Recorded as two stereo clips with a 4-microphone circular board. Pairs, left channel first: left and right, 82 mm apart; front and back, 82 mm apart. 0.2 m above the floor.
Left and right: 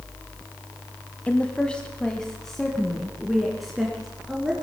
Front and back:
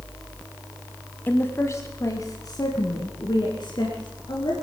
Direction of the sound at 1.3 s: 35° left.